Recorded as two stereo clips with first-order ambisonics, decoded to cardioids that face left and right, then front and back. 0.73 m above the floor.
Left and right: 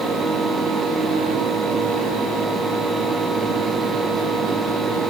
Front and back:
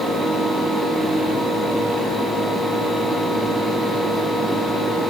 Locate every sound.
Only background noise.